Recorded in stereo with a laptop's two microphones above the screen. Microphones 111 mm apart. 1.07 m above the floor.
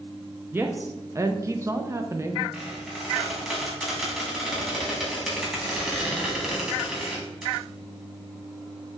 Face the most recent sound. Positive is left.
turn(degrees=-5)  # may be behind; listen again after turning